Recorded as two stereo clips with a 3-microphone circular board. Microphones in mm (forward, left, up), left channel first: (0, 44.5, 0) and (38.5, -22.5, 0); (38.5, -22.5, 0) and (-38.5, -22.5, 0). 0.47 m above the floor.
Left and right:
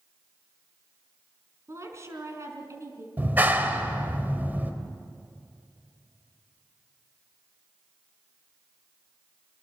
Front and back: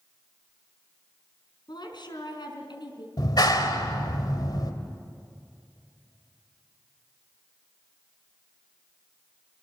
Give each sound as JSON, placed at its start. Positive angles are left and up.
{"t": 1.7, "sound": "a woman speaking", "azimuth_deg": -10, "distance_m": 4.5}
{"t": 3.2, "sound": "a clap", "azimuth_deg": 5, "distance_m": 2.0}